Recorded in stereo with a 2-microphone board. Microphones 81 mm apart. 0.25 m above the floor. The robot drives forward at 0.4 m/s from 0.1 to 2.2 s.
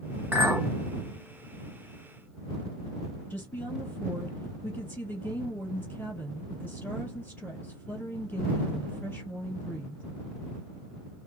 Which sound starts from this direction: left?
A woman speaking, at 3.3 s.